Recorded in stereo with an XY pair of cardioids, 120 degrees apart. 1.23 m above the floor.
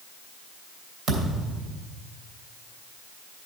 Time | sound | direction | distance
1.1 | a thud | 55° right | 2.5 m